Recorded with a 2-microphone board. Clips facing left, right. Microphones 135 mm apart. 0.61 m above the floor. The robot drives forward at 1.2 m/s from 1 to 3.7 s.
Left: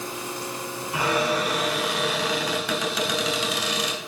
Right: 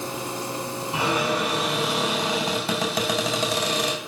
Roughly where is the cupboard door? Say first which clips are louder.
Left 1 dB; centre.